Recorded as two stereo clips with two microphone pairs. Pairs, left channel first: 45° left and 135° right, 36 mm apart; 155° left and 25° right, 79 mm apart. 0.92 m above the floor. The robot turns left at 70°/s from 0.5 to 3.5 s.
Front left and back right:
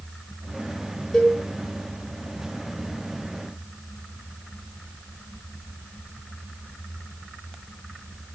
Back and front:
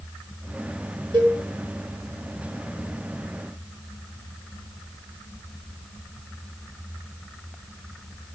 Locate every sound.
1.1 s a cowbell: 30° right, 1.4 m; by 1.4 s 45° right, 1.4 m